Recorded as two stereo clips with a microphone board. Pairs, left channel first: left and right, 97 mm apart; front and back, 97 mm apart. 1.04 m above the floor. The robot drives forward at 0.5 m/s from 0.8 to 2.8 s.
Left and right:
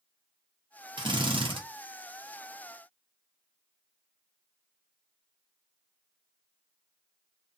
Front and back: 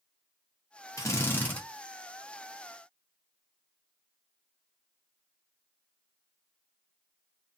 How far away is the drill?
About 0.9 m.